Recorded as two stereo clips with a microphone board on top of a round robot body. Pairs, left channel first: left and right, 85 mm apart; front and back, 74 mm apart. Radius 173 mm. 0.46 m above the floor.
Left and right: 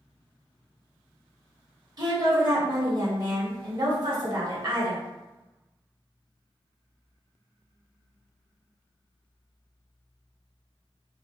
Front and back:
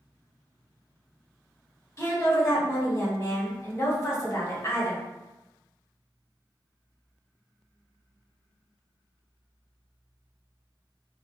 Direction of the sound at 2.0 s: 50° right.